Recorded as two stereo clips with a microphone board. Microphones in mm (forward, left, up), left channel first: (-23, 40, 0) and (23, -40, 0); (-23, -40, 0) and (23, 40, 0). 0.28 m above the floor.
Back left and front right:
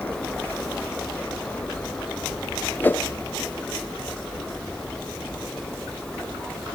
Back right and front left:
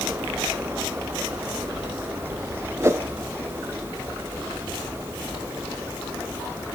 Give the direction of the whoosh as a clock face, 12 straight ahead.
9 o'clock.